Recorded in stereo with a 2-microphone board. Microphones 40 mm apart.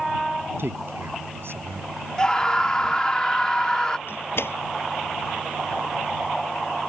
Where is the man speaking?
70° right (ahead or behind).